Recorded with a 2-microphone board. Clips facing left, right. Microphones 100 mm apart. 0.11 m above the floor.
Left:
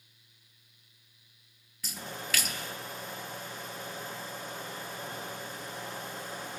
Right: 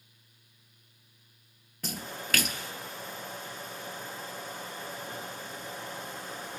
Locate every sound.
1.8 s a splash: 55° right (ahead or behind), 0.8 m